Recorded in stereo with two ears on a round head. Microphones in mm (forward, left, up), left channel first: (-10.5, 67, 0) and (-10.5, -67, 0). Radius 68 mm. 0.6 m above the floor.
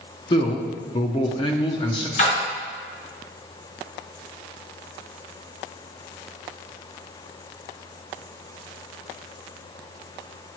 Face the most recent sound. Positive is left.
turn(degrees=55)  # may be behind; listen again after turning